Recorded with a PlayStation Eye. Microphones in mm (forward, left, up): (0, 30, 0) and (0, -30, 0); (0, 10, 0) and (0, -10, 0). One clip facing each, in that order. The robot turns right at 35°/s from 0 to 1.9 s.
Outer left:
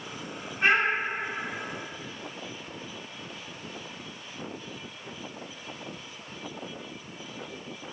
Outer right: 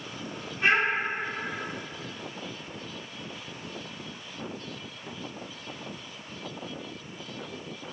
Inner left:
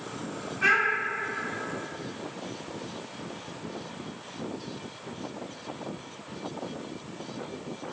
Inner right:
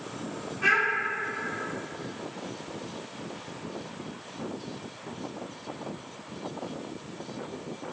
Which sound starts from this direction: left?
A child speaking, at 0.6 s.